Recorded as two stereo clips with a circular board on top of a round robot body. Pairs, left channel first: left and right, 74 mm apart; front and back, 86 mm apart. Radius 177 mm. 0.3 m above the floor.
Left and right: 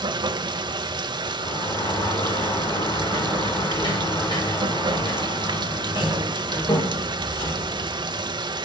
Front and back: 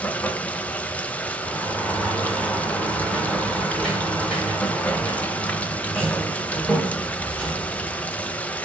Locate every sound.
0.0 s running water: 75° right, 0.9 m
1.4 s a sliding door: 80° left, 4.5 m